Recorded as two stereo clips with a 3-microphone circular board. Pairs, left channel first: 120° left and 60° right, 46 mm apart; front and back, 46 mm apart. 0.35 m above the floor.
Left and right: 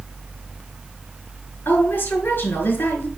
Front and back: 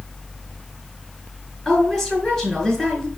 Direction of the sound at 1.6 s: 80° left.